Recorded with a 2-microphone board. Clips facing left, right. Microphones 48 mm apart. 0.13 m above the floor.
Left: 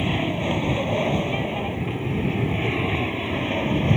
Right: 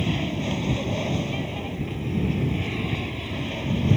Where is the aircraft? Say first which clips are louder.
Left 3 dB; 25° left (ahead or behind); by 4.0 s 30° left (ahead or behind).